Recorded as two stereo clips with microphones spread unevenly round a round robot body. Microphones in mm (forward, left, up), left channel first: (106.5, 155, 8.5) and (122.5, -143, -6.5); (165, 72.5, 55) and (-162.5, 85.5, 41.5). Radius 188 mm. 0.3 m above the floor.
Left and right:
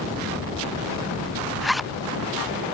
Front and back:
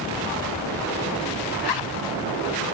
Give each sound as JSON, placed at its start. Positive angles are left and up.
{"t": 1.6, "sound": "a zipper", "azimuth_deg": 5}